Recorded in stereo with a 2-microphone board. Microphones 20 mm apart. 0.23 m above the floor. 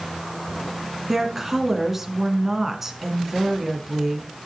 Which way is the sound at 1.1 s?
15° right (ahead or behind).